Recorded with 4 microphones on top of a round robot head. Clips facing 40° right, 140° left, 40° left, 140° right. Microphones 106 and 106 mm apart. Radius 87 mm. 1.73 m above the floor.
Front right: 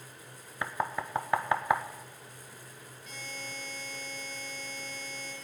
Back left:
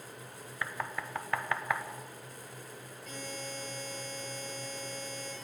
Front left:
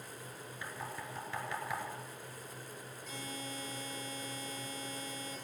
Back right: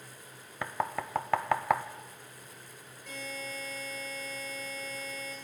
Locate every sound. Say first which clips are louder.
0.6 s knocking: front right 5 dB, back right 11 dB; 110° right, 0.5 m
3.1 s a buzzer: back left 3 dB, back right 4 dB; 175° right, 9 m